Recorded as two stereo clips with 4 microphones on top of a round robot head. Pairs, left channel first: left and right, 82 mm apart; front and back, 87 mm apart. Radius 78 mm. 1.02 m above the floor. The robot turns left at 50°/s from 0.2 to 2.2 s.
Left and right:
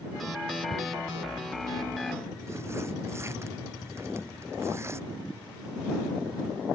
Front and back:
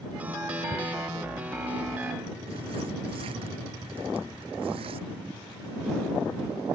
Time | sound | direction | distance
0.7 | tearing paper | 75° right | ?